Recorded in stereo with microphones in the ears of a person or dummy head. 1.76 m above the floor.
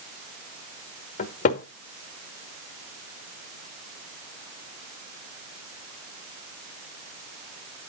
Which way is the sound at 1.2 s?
45° left (ahead or behind).